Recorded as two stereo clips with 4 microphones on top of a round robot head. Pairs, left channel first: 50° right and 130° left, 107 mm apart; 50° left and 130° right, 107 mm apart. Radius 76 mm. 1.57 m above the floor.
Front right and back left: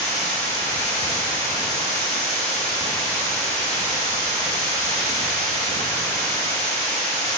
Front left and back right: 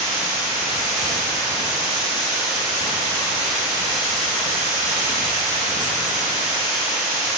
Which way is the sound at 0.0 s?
120° right.